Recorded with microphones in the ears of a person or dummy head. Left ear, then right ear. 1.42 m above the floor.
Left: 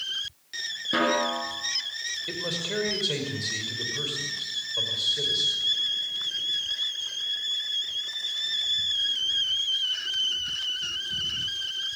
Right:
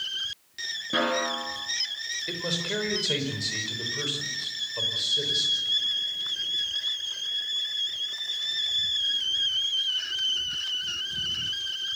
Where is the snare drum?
15° left (ahead or behind), 4.5 m.